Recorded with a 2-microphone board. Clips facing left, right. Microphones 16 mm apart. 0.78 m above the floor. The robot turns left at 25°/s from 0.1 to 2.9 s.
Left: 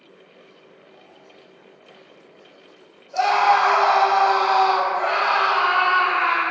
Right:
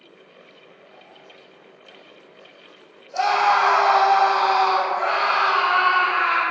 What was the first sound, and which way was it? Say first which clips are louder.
A scream: left 1 dB; centre (ahead or behind).